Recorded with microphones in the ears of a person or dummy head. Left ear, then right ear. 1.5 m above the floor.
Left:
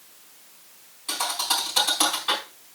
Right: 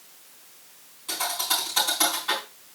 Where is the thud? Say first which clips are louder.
Left 1 dB; 20° left (ahead or behind), 4 m.